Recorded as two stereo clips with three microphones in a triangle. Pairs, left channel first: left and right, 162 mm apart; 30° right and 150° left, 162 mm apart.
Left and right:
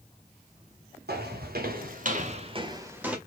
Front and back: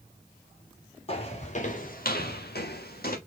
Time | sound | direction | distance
1.1 | footsteps | 85° right | 2.5 m